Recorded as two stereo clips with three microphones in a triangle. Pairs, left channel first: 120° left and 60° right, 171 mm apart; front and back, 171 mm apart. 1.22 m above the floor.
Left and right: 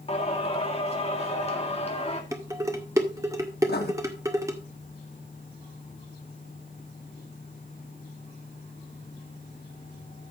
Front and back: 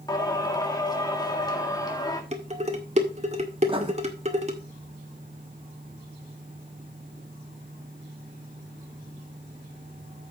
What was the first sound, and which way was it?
Singing, 70° left.